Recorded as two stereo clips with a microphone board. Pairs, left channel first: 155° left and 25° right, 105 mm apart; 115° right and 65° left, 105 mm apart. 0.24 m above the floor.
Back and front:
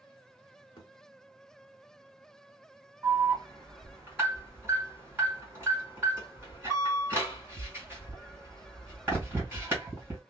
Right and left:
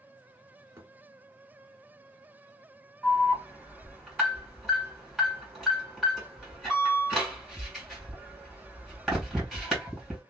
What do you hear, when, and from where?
0.8 s a thud: 130° left, 1.2 m
3.0 s an alarm: 20° right, 2.0 m